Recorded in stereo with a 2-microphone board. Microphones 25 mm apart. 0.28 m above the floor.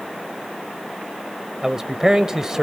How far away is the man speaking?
About 0.9 m.